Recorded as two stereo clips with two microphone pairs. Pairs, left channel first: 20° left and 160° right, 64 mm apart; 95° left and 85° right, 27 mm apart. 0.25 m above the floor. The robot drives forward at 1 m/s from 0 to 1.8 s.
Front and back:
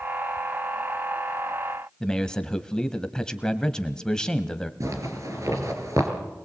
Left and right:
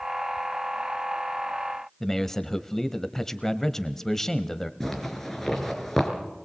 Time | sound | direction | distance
2.0 | a man speaking | 75° left | 1.0 m
4.8 | a zipper | 170° left | 4 m